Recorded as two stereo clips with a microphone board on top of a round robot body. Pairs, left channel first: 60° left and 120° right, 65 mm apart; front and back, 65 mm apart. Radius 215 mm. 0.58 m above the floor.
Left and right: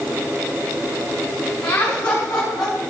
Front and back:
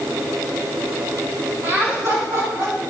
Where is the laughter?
130° left, 5.5 m; by 2.8 s 145° left, 6 m.